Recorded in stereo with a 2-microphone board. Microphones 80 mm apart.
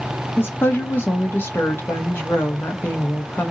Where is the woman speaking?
30° left (ahead or behind), 1.1 m.